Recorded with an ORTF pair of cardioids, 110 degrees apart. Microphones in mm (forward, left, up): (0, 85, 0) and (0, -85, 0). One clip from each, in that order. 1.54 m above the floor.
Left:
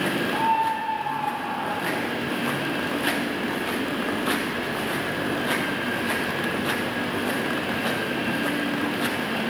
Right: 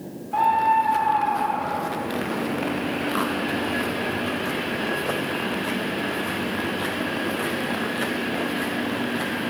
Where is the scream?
55° right, 4 m; by 2.1 s 70° right, 5 m.